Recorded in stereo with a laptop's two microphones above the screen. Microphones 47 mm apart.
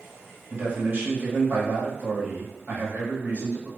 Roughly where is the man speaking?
Right.